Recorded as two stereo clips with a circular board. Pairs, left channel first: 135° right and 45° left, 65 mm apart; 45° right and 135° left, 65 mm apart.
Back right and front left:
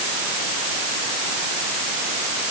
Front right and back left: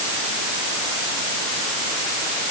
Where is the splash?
No splash in this recording.